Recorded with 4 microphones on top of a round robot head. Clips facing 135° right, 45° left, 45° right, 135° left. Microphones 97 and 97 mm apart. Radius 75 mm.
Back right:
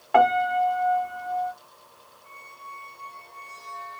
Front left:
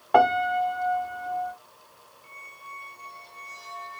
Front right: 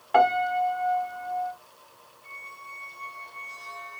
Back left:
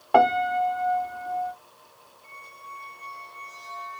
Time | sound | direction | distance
0.1 | a piano | 105° left | 1.0 m
2.2 | a squeak | 70° left | 1.9 m